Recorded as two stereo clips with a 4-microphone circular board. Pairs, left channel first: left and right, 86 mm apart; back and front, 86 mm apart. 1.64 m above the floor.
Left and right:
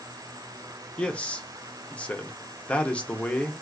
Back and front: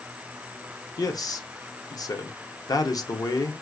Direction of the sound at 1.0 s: 160° left.